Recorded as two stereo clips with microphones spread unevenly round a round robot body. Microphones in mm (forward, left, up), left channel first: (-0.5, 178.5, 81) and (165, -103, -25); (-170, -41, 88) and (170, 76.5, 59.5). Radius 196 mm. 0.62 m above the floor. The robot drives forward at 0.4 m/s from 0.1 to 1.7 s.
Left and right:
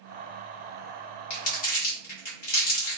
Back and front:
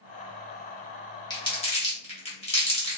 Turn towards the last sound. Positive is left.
turn(degrees=125)